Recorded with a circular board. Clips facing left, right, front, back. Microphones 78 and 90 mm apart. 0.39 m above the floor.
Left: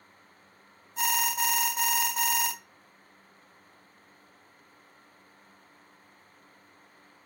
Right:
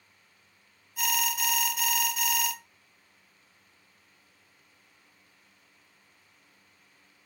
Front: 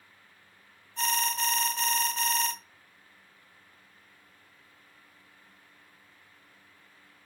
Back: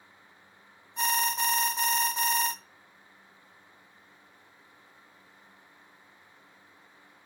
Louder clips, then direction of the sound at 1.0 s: Left 2 dB, back 1 dB; 120° left.